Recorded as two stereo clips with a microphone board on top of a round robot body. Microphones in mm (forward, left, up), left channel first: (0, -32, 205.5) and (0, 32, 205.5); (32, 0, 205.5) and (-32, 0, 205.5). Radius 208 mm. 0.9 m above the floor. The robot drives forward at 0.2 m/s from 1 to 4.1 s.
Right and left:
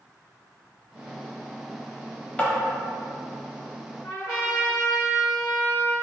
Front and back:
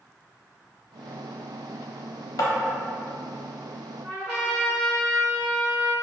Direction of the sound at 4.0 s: 135° right.